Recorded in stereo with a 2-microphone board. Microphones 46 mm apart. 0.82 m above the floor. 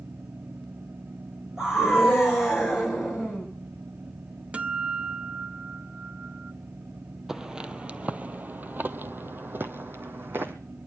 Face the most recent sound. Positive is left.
turn(degrees=-50)  # may be behind; listen again after turning